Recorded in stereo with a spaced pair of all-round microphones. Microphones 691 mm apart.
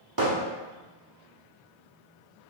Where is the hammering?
30° right (ahead or behind), 0.9 m.